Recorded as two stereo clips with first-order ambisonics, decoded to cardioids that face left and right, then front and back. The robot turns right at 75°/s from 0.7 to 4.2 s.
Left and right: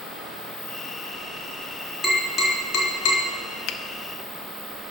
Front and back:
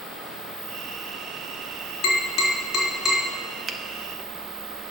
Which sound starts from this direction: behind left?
A finger snap, at 3.7 s.